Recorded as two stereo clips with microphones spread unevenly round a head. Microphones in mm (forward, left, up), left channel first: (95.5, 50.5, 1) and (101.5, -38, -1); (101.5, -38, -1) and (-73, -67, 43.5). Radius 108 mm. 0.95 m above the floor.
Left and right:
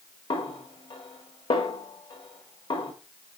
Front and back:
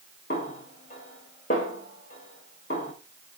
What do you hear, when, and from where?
0.3 s a snare drum: 70° left, 1.6 m